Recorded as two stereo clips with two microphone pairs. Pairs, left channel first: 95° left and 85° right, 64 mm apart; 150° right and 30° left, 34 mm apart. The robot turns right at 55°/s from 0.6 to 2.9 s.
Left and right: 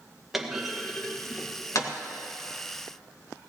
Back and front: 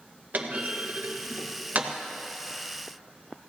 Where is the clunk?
Straight ahead, 1.6 m; by 1.9 s 75° left, 1.6 m.